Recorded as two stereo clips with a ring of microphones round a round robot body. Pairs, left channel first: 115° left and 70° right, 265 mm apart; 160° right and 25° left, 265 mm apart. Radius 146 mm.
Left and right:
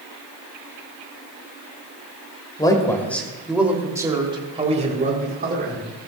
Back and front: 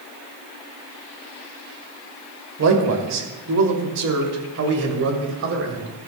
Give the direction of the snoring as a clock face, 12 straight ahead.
No snoring in this recording.